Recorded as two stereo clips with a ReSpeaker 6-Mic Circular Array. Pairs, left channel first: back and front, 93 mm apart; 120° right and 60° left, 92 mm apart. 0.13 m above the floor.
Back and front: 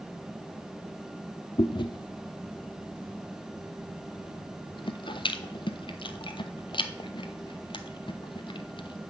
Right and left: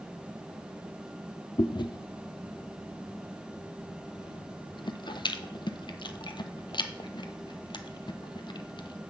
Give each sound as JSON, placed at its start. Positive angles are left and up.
{"t": 1.6, "sound": "chewing", "azimuth_deg": -150, "distance_m": 0.6}